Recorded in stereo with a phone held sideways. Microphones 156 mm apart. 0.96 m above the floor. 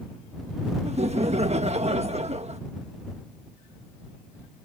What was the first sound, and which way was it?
Laughter, 45° right (ahead or behind).